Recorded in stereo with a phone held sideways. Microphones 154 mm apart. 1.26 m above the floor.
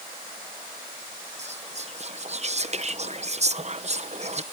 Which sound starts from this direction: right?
Whispering, at 1.4 s.